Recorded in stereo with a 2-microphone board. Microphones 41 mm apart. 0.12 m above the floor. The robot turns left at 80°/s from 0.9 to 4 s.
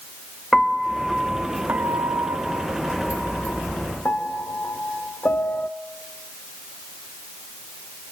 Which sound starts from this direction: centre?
A piano, at 0.5 s.